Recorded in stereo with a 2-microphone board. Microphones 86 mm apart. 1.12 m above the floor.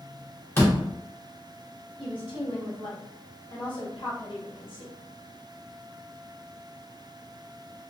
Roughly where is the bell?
No bell in this recording.